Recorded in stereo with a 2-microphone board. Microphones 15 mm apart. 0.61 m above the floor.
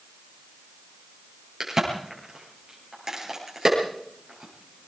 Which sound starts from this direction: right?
A crack, at 1.6 s.